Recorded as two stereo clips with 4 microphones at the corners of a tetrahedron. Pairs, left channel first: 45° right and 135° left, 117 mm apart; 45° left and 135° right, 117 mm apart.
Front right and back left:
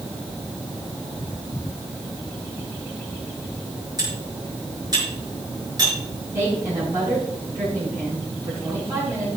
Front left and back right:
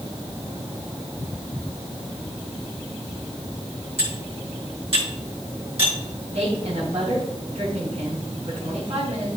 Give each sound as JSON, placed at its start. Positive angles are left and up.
{"t": 4.0, "sound": "cutlery clinking", "azimuth_deg": -170, "distance_m": 5.5}
{"t": 6.3, "sound": "a woman speaking", "azimuth_deg": -155, "distance_m": 5.0}